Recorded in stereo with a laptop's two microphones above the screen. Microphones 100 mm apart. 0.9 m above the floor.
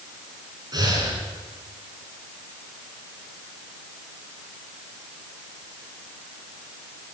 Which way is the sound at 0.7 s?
40° right (ahead or behind).